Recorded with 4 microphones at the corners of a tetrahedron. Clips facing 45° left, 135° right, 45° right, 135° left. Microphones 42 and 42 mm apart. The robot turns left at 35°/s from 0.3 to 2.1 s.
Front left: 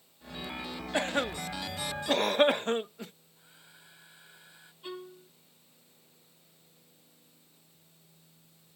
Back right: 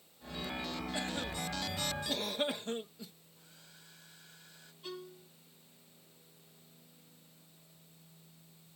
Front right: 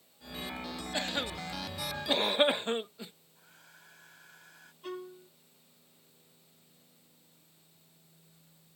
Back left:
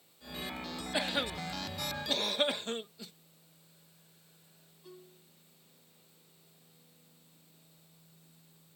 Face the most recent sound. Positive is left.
turn(degrees=-25)